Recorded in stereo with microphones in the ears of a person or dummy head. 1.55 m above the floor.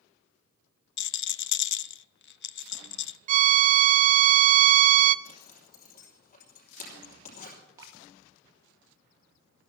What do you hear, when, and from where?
1.0 s a rattle: 60° left (ahead or behind), 0.5 m
3.3 s a violin: 45° right (ahead or behind), 0.5 m
5.2 s a zipper: 45° left (ahead or behind), 5 m
7.8 s dripping: 20° right (ahead or behind), 1.9 m